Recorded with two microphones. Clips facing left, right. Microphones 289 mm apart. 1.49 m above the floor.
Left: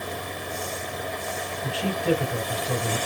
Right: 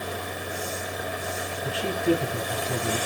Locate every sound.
1.6 s a man speaking: 75° left (ahead or behind), 7 m